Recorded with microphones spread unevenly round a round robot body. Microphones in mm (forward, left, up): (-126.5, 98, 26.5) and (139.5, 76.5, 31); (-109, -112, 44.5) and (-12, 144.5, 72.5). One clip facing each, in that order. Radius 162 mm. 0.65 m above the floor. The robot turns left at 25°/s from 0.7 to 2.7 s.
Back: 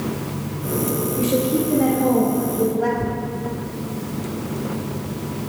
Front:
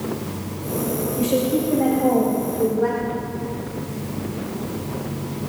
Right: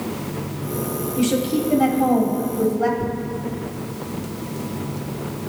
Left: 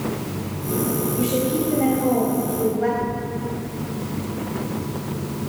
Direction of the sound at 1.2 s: 95° right.